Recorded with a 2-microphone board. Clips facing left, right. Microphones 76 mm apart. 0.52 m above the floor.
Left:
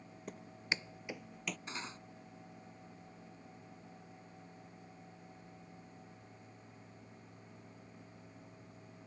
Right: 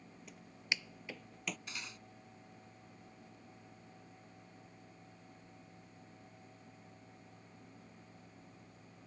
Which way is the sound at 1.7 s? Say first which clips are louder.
Left 4 dB; 30° left (ahead or behind).